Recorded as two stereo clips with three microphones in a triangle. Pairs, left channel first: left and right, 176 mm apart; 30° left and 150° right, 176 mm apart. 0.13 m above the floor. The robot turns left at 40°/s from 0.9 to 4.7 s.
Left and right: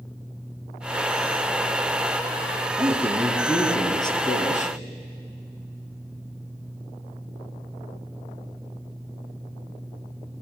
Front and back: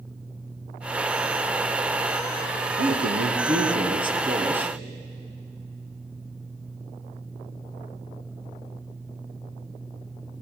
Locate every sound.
2.8 s a man speaking: 155° right, 2.5 m; by 4.8 s 125° left, 2.5 m